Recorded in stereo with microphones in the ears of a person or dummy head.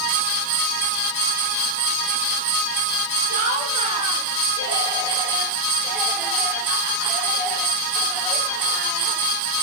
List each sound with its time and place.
3.3 s laughter: 55° right (ahead or behind), 2.5 m; by 9.3 s 5° left (ahead or behind), 8.5 m